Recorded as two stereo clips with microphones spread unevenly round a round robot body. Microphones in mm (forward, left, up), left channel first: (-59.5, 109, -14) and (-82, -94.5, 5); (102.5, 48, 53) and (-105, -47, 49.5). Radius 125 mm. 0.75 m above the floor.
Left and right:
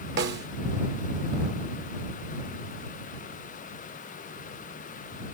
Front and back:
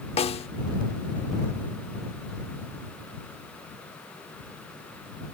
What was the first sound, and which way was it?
A snare drum, 40° right.